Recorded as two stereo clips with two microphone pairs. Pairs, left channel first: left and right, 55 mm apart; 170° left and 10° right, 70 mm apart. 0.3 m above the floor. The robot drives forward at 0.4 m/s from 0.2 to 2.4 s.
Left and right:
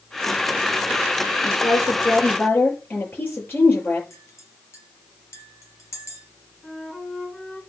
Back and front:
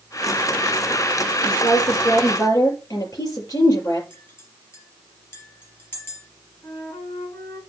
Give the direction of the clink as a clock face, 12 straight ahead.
8 o'clock.